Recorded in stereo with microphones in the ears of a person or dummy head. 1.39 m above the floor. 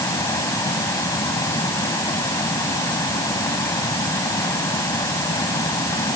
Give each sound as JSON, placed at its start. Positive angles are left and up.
{"t": 0.0, "sound": "a fan", "side_deg": 20}